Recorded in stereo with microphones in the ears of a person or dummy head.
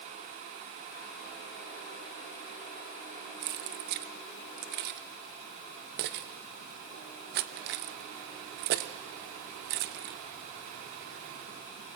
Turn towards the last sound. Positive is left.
turn(degrees=-50)  # may be behind; listen again after turning